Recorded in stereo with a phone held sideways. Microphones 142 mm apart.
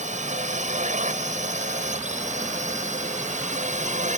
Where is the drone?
55° right (ahead or behind).